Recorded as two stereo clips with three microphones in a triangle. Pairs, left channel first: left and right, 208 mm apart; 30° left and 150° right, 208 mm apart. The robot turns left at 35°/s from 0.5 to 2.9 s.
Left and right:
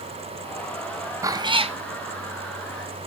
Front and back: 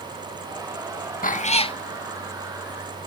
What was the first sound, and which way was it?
A cat meowing, 20° right.